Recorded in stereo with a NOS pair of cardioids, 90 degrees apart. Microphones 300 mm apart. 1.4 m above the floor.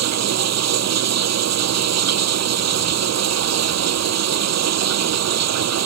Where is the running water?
60° right.